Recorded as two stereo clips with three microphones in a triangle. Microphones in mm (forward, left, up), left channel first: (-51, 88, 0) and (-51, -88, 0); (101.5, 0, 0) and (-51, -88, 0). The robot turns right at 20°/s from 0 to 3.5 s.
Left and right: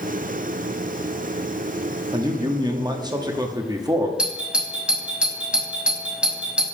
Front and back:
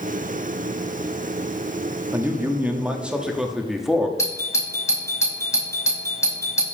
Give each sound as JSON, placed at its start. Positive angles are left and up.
{"t": 2.1, "sound": "a man speaking", "azimuth_deg": -95, "distance_m": 0.8}
{"t": 4.2, "sound": "a doorbell", "azimuth_deg": -15, "distance_m": 1.1}